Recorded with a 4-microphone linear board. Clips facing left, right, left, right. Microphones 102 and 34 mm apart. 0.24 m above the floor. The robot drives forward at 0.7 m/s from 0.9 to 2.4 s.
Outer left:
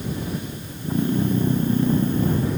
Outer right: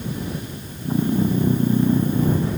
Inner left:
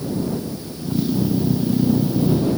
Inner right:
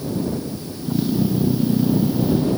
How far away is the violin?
I don't hear a violin.